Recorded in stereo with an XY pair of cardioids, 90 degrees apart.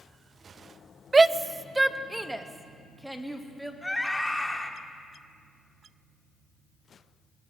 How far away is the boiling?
I don't hear boiling.